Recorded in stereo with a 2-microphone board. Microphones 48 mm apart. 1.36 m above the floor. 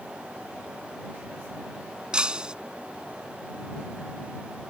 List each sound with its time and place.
2.1 s breaking glass: 20° right (ahead or behind)